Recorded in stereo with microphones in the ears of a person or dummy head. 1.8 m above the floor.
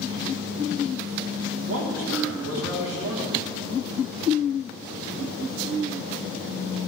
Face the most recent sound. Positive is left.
turn(degrees=-70)  # may be behind; listen again after turning